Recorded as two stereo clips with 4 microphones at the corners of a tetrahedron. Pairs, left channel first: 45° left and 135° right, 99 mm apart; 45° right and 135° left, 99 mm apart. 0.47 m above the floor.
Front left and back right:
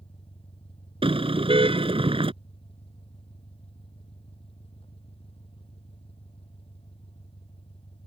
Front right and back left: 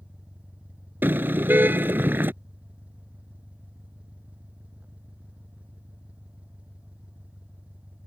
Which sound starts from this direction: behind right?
A car horn, at 1.0 s.